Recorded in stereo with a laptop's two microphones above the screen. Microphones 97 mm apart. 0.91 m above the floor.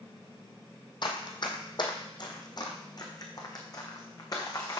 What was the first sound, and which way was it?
Running footsteps, 50° left (ahead or behind).